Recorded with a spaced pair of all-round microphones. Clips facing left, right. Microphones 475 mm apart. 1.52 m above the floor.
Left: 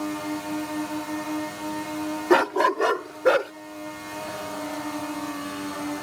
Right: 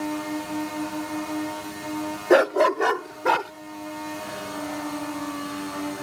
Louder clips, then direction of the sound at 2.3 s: Right 3 dB; 20° left (ahead or behind).